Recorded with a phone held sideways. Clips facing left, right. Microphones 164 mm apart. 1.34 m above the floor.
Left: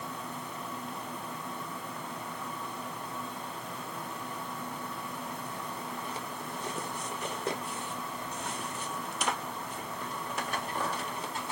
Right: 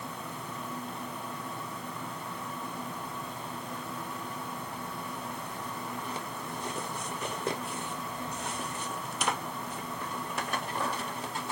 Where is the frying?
No frying in this recording.